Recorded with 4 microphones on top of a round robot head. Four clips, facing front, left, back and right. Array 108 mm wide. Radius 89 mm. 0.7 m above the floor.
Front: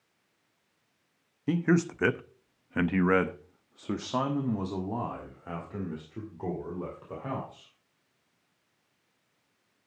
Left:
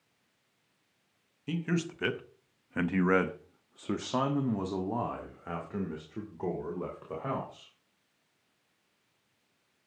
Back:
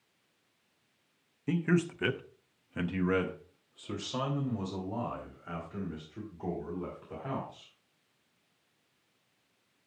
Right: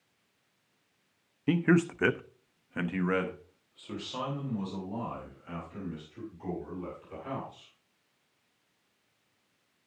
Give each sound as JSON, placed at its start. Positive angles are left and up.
{"t": 1.5, "sound": "a man speaking", "azimuth_deg": -65, "distance_m": 0.9}